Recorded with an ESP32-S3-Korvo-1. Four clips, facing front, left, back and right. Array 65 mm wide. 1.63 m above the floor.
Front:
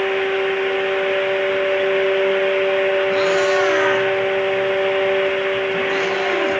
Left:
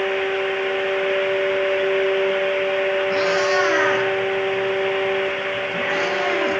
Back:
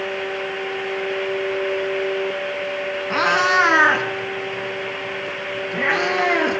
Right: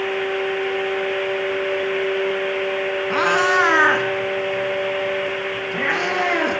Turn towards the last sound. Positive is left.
turn(degrees=-145)